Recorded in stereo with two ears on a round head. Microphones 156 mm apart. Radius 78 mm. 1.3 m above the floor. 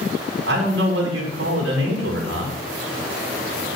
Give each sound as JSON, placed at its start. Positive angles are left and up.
{"t": 0.5, "sound": "a man speaking", "side_deg": -70, "distance_m": 2.5}